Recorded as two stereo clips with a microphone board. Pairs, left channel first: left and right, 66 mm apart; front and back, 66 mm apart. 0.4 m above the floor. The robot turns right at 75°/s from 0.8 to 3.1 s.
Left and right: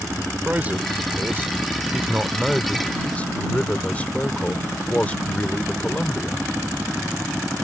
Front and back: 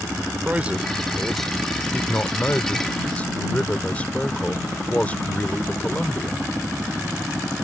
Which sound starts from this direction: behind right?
A man speaking, at 0.5 s.